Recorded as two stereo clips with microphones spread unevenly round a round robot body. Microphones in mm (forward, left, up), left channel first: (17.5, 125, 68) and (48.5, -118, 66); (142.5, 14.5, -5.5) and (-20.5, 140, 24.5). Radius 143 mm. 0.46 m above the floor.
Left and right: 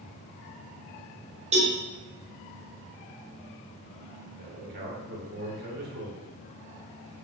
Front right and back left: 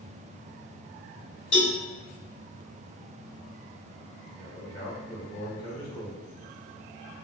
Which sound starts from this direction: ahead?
A cowbell, at 1.5 s.